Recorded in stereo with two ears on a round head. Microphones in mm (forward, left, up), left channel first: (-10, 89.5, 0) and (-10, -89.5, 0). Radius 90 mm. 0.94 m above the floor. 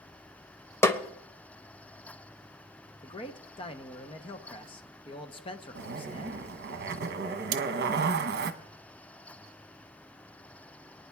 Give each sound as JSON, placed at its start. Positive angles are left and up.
{"t": 0.8, "sound": "a snare drum", "side_deg": 10, "distance_m": 0.7}
{"t": 3.0, "sound": "a man speaking", "side_deg": 25, "distance_m": 0.7}
{"t": 5.8, "sound": "a zipper", "side_deg": -50, "distance_m": 0.8}
{"t": 7.5, "sound": "cutlery clinking", "side_deg": -70, "distance_m": 0.7}